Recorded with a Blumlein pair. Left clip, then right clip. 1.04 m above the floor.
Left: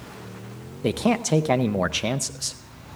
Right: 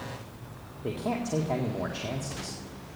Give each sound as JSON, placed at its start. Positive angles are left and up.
{"t": 0.8, "sound": "a man speaking", "azimuth_deg": 45, "distance_m": 0.5}